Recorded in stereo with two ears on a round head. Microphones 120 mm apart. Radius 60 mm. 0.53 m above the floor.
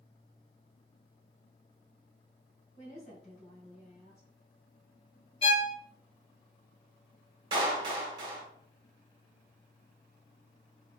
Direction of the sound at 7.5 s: 35° right (ahead or behind).